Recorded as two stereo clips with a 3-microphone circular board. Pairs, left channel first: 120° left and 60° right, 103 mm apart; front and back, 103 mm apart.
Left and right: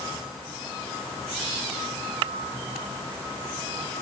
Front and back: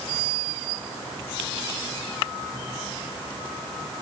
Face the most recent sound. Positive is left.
No sound to turn to.